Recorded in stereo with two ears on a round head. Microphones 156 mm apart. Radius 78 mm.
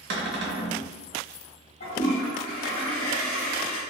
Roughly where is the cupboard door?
Right.